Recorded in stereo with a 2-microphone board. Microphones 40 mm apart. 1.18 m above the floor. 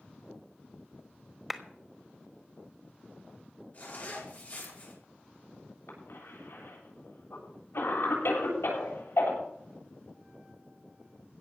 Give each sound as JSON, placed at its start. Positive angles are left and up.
{"t": 1.5, "sound": "a clap", "side_deg": -10, "distance_m": 1.2}
{"t": 3.7, "sound": "a zipper", "side_deg": 45, "distance_m": 5.5}
{"t": 5.9, "sound": "a cough", "side_deg": 80, "distance_m": 8.0}